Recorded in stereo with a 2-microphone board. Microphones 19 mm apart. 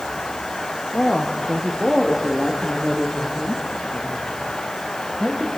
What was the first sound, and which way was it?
A woman speaking, 50° left (ahead or behind).